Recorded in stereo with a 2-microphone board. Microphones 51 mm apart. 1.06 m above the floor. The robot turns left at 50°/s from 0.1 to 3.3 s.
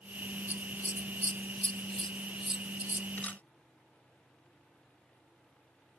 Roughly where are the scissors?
Left.